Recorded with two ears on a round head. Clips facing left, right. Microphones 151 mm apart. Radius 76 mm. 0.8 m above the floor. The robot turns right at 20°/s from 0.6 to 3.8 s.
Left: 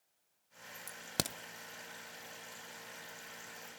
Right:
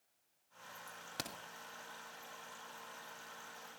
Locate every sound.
0.9 s a crack: 60° left (ahead or behind), 0.7 m